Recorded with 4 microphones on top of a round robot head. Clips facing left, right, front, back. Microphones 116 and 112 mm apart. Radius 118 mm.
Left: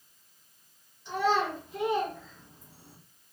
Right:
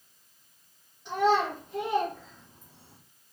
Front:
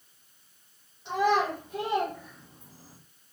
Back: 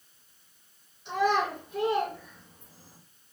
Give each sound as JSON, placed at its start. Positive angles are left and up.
{"t": 1.1, "sound": "a child speaking", "azimuth_deg": -65, "distance_m": 1.2}